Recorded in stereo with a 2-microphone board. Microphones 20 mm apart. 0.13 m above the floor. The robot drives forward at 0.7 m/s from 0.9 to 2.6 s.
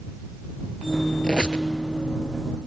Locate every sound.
1.2 s a squeak: 50° left (ahead or behind), 1.0 m; by 1.6 s 55° left (ahead or behind), 0.9 m